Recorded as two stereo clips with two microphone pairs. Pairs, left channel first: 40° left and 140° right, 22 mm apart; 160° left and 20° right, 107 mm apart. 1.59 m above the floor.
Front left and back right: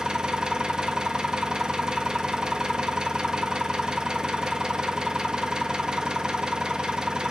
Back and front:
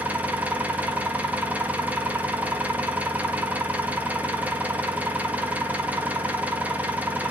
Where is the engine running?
95° right, 1.3 m.